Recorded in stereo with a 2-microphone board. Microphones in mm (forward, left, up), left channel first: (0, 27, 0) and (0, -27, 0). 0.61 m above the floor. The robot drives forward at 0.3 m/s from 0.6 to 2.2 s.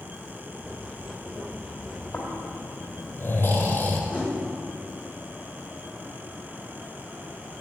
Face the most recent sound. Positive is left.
turn(degrees=-30)  # may be behind; listen again after turning